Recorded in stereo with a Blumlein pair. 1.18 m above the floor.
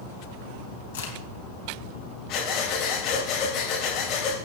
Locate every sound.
0.9 s a crack: 65° left, 3 m
2.3 s breathing: 35° left, 4 m